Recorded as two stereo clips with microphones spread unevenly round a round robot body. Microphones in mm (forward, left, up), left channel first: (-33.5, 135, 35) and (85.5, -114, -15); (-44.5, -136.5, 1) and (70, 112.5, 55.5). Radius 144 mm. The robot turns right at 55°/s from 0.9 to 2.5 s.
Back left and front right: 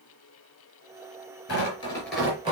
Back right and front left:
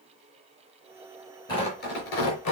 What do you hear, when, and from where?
1.5 s tearing paper: 170° left, 4.5 m; by 2.5 s 135° right, 4.5 m